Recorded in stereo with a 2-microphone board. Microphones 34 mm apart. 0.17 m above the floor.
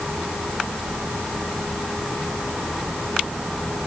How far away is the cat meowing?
No cat meowing in this recording.